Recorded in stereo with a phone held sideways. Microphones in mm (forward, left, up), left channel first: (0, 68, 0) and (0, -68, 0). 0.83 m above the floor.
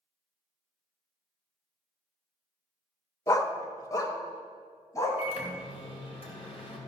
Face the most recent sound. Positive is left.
turn(degrees=45)  # may be behind; listen again after turning